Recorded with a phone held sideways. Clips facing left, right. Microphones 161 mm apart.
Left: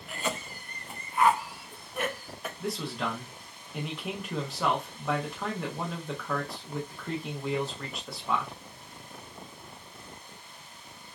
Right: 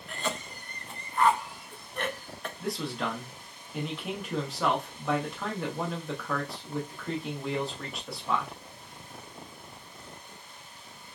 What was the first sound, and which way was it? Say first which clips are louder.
A cough: even; 5° left (ahead or behind).